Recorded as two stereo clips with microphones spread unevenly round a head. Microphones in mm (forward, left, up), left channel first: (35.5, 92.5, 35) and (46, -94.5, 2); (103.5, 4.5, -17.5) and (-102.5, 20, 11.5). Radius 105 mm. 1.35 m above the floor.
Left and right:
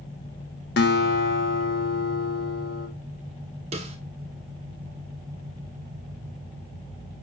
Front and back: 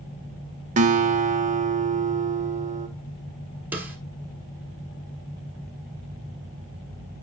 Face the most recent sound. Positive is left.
turn(degrees=-130)